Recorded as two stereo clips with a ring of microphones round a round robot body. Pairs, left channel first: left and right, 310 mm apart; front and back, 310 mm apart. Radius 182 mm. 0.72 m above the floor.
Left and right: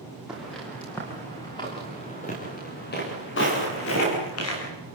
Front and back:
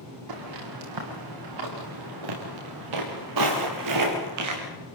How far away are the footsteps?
About 8 m.